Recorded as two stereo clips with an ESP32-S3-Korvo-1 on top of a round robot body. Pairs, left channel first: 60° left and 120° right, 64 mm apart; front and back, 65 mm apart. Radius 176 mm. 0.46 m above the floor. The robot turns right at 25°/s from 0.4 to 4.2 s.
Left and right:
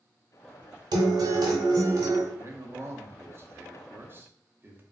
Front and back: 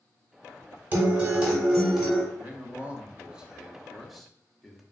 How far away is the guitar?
About 0.9 m.